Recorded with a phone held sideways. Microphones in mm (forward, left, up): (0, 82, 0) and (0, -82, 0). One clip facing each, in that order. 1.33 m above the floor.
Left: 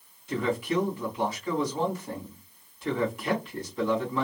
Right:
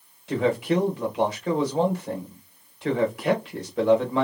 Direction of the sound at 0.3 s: 85° right.